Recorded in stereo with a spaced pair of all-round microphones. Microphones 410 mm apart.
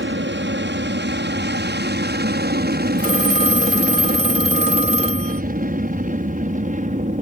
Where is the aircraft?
25° right (ahead or behind); by 7.2 s 20° right (ahead or behind).